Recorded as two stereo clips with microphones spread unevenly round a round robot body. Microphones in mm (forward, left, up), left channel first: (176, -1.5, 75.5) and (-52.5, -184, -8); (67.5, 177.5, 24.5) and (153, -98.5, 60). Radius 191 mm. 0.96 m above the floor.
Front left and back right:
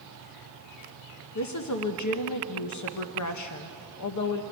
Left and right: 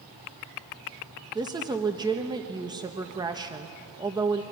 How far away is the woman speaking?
About 1.3 m.